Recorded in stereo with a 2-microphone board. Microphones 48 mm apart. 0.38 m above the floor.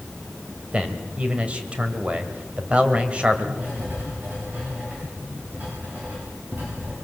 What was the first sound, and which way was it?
A man speaking, 20° right (ahead or behind).